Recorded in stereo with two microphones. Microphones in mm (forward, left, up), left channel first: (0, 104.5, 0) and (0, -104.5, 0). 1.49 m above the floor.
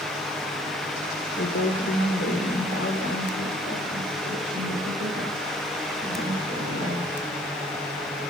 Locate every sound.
1.4 s a woman speaking: 65° left (ahead or behind), 1.1 m; by 7.1 s 55° left (ahead or behind), 5 m